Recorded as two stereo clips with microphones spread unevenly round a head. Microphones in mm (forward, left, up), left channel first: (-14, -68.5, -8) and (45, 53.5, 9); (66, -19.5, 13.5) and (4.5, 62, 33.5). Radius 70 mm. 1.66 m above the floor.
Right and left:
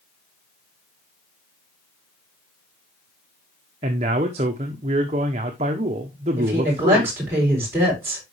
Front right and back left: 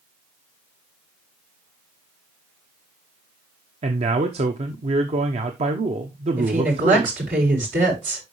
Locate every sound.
3.8 s a man speaking: 110° left, 0.9 m
6.4 s a woman speaking: 140° left, 6.5 m